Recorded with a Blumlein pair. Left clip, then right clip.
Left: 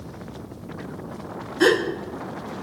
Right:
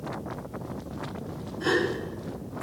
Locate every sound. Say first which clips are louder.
1.6 s a gasp: left 7 dB; 40° left, 1.1 m